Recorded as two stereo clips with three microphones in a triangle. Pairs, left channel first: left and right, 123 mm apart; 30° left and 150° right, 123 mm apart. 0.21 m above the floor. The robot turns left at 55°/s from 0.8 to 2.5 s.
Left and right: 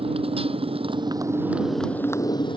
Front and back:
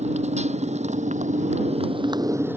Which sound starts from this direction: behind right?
A motorcycle, at 0.0 s.